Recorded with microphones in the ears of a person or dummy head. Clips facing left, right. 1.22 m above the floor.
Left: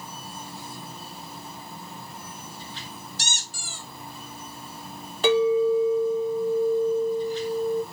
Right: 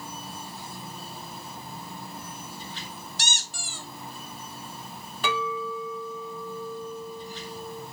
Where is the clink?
30° left (ahead or behind), 0.8 m.